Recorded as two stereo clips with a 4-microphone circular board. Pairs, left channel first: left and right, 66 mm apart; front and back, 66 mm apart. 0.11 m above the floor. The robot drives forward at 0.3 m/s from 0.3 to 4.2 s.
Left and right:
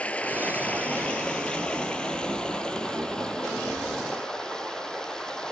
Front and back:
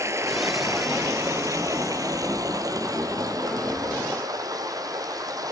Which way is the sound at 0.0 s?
155° left.